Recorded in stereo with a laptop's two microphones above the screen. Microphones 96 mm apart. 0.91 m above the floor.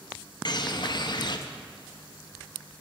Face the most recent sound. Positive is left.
turn(degrees=50)  # may be behind; listen again after turning